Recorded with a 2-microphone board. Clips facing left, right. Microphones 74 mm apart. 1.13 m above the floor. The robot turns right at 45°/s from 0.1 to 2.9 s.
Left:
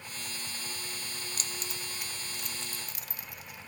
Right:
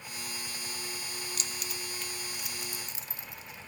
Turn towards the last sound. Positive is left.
turn(degrees=-25)  # may be behind; listen again after turning